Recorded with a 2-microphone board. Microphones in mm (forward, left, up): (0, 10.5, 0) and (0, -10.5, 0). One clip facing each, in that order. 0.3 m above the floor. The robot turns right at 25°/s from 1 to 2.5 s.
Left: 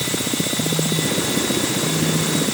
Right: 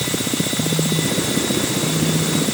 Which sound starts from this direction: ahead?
A phone buzzing, at 0.6 s.